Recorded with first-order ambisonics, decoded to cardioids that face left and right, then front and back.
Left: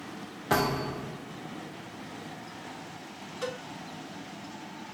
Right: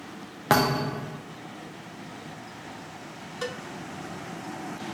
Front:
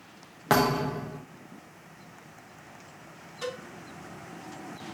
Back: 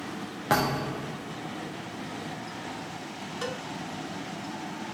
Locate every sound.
0.5 s a thud: 80° right, 0.5 m
3.4 s a cowbell: 130° right, 1.0 m